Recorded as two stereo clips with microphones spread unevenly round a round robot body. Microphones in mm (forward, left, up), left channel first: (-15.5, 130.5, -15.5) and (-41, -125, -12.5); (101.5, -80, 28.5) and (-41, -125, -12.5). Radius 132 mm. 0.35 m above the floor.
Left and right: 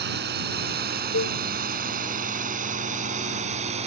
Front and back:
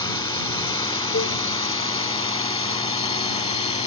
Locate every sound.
0.0 s a drone: 45° right; by 3.9 s 30° right
1.1 s a cowbell: 35° left